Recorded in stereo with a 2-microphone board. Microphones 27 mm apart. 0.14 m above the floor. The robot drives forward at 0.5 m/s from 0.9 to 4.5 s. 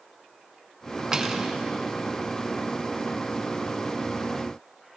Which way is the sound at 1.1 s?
20° right (ahead or behind).